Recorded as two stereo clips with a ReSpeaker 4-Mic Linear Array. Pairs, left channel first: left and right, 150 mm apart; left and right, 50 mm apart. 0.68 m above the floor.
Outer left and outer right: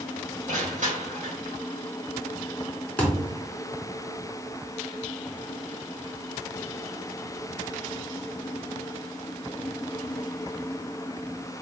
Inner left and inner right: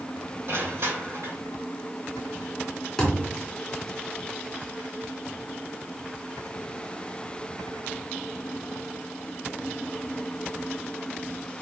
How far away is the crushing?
About 2.5 m.